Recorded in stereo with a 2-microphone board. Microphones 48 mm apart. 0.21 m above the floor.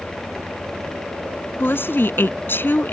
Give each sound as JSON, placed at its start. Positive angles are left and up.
{"t": 1.6, "sound": "a woman speaking", "side_deg": 55}